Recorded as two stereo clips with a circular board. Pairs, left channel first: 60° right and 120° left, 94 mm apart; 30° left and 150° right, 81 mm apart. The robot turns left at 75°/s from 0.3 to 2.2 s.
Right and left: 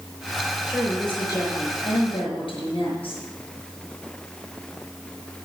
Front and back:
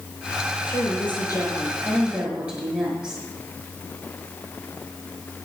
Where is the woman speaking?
45° left, 5.5 m; by 3.2 s 75° right, 5.5 m.